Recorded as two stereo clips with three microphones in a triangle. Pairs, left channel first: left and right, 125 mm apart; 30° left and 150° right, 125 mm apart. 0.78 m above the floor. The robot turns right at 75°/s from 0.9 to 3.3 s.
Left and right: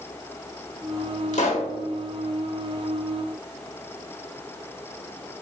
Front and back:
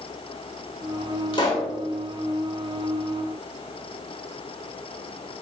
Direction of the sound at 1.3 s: 75° left.